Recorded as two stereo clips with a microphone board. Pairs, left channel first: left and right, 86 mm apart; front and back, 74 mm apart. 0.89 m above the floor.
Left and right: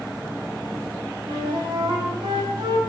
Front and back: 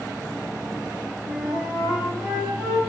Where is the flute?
105° right, 5 m.